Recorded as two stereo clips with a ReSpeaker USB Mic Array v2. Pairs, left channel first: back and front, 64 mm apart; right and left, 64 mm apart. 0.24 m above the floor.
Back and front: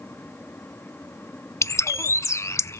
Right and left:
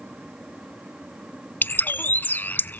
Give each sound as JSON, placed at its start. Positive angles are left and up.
{"t": 1.6, "sound": "a bird", "azimuth_deg": -145, "distance_m": 0.5}